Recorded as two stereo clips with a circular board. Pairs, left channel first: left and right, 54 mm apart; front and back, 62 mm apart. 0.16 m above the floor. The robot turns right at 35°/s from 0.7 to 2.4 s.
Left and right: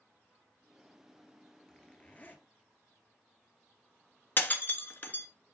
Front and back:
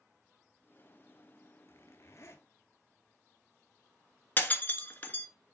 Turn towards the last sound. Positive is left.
turn(degrees=50)